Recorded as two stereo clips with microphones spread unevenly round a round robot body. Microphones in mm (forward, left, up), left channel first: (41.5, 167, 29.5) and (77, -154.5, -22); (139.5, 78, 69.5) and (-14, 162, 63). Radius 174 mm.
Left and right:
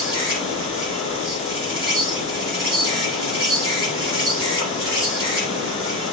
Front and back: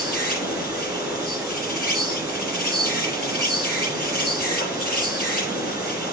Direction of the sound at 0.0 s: 145° right.